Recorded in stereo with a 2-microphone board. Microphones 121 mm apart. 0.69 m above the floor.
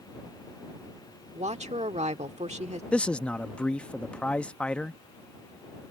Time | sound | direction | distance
1.4 | a woman speaking | 65° right (ahead or behind) | ?
2.9 | a man speaking | 10° left (ahead or behind) | ?